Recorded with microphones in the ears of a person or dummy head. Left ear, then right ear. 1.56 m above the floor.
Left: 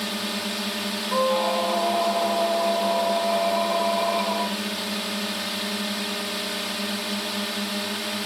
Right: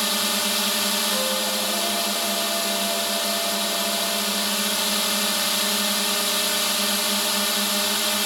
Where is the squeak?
70° left (ahead or behind).